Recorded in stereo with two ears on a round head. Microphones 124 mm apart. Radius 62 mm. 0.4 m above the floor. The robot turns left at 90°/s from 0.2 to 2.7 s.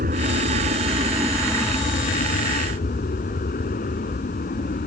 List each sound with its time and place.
0.0 s an aircraft: 65° right (ahead or behind); by 4.9 s 65° left (ahead or behind)